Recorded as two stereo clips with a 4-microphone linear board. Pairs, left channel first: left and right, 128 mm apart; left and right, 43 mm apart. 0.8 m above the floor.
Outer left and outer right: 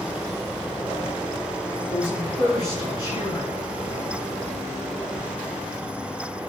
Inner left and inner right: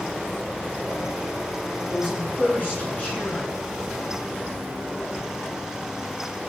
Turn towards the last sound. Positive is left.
turn(degrees=30)  # may be behind; listen again after turning